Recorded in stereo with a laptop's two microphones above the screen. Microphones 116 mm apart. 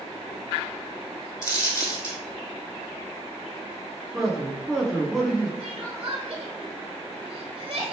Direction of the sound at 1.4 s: 30° left (ahead or behind).